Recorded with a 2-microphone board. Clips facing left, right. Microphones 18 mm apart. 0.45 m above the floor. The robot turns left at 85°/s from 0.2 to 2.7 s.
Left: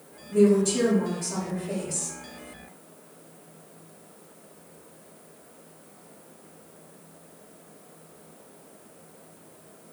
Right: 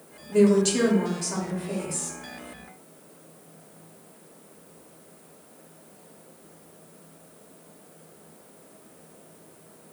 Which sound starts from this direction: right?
A woman speaking, at 0.3 s.